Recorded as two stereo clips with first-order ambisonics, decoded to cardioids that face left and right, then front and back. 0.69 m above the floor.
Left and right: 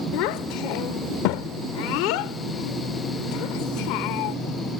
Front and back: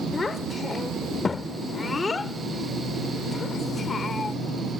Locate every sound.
0.1 s a child speaking: 75° left